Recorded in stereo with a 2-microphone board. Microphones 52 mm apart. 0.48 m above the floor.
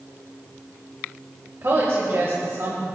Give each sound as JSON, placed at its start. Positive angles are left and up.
{"t": 1.6, "sound": "a woman speaking", "side_deg": -60, "distance_m": 2.0}